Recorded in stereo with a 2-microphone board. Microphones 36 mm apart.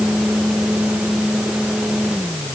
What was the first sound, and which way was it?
Only background noise.